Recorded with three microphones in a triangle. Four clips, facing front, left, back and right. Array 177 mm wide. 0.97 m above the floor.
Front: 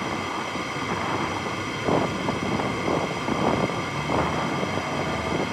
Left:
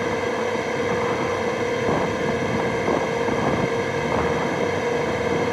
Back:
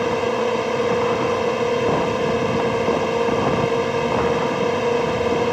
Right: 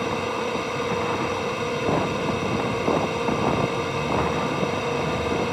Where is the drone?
165° left.